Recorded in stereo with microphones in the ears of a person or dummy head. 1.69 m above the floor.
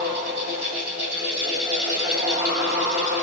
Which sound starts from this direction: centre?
A fan, at 0.0 s.